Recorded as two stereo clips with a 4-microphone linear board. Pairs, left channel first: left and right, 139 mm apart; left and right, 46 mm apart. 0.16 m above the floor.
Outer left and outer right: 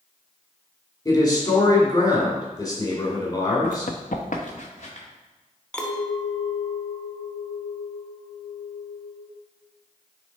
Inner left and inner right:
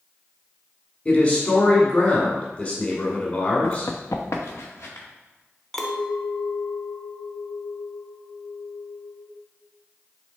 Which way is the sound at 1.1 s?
30° left (ahead or behind).